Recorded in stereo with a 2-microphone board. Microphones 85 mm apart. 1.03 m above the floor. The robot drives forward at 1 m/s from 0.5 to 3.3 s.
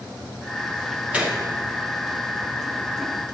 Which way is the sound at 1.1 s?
15° right (ahead or behind).